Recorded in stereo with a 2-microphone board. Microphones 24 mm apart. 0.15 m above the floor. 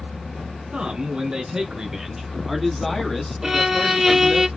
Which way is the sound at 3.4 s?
10° right (ahead or behind).